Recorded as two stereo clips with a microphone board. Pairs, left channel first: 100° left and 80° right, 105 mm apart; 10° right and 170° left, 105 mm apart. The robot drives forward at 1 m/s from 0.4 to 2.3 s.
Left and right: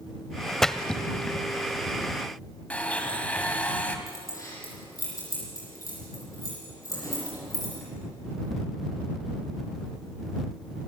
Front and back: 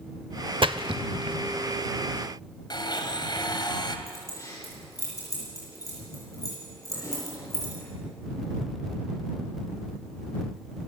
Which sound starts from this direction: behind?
A splash, at 0.6 s.